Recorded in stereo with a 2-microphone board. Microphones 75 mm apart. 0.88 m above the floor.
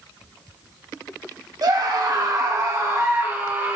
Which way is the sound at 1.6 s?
65° right (ahead or behind).